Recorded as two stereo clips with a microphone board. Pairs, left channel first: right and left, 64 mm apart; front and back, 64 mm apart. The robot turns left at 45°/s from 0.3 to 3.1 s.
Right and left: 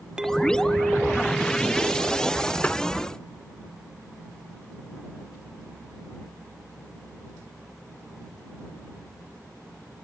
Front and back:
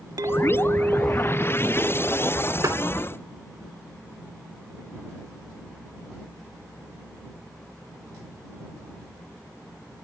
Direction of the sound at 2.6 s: 155° right.